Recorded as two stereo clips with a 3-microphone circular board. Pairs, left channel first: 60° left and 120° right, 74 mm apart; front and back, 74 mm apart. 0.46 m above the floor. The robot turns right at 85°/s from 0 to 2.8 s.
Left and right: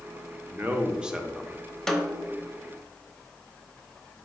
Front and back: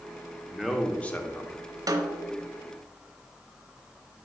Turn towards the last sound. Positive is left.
turn(degrees=-135)